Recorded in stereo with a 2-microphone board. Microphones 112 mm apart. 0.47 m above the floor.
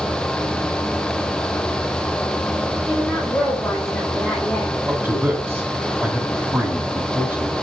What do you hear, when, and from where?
2.9 s a woman speaking: 10° left (ahead or behind), 2 m
4.9 s a man speaking: 20° right (ahead or behind), 3 m